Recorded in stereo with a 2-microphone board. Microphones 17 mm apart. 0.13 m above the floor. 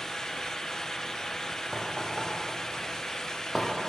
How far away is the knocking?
About 4 m.